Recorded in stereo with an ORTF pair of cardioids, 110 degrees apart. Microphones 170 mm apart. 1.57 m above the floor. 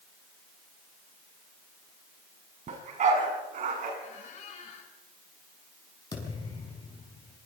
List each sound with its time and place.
2.7 s a dog barking: 45° right, 6 m; by 3.9 s 55° right, 7 m
4.0 s a squeak: 45° left, 5 m
6.1 s a thud: 25° left, 5.5 m